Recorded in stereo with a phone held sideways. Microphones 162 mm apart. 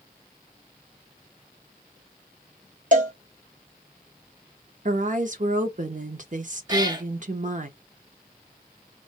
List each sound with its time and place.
2.9 s a cowbell: 55° right (ahead or behind), 0.9 m
4.8 s a woman speaking: 55° right (ahead or behind), 0.8 m
6.7 s a cat meowing: 25° right (ahead or behind), 0.7 m